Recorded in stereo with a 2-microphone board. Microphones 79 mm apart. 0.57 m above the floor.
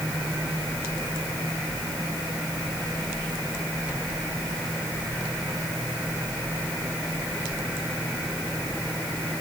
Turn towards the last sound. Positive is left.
No sound to turn to.